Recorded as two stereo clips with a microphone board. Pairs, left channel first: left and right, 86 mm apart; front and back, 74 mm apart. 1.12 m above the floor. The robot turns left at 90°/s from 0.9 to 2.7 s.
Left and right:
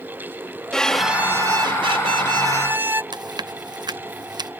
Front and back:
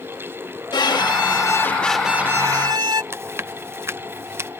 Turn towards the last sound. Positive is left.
turn(degrees=-125)